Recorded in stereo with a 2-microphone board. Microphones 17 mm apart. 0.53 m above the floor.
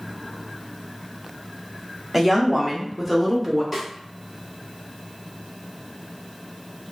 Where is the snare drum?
10° right (ahead or behind), 1.4 m.